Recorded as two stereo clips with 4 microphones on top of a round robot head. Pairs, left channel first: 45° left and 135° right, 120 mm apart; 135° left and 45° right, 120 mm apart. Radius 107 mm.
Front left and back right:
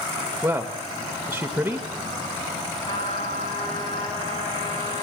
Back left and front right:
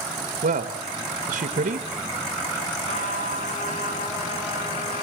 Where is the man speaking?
55° right, 1.5 m.